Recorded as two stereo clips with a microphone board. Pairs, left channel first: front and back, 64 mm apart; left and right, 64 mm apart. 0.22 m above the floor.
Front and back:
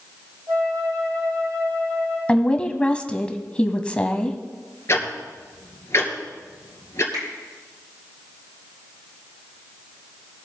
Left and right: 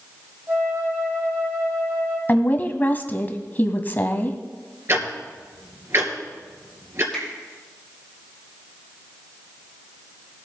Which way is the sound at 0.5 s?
145° right.